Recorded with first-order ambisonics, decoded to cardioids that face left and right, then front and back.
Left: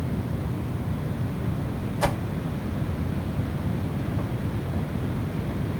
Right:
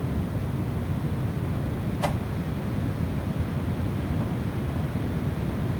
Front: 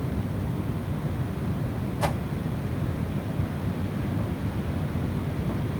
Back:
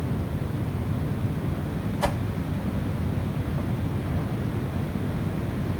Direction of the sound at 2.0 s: 80° left.